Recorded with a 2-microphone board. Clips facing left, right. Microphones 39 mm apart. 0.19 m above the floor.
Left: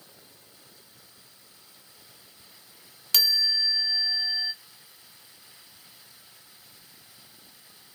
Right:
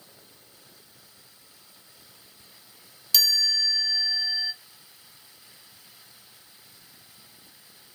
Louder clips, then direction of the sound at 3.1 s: Right 1 dB; 45° left (ahead or behind).